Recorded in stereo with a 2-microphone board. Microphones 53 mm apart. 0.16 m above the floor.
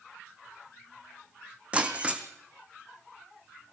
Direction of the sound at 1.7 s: 25° right (ahead or behind).